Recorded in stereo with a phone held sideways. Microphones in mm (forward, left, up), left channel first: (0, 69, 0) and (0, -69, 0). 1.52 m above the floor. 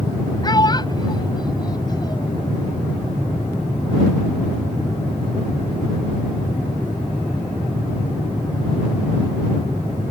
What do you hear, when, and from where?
0.4 s a child speaking: 30° left (ahead or behind)